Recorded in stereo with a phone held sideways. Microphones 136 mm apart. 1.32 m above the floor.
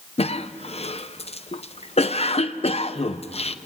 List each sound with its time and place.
0.2 s a cough: 45° left (ahead or behind), 0.9 m